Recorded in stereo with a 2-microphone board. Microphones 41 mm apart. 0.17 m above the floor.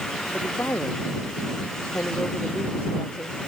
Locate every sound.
0.3 s a woman speaking: 75° left (ahead or behind)